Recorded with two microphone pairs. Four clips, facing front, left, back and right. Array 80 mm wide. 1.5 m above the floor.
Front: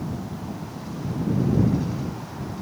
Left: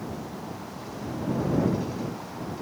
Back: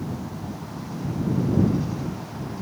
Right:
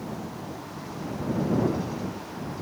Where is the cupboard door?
No cupboard door in this recording.